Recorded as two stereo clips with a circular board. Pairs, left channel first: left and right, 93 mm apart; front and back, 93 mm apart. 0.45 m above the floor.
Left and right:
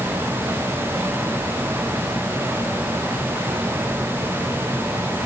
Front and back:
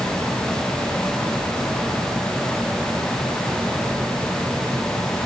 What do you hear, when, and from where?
Only background noise.